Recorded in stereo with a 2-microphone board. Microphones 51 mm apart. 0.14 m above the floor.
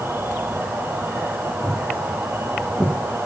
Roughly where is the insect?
Right.